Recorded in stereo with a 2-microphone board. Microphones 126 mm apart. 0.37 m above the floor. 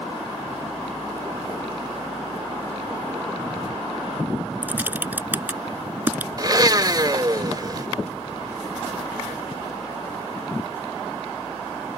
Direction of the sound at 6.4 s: 35° right (ahead or behind).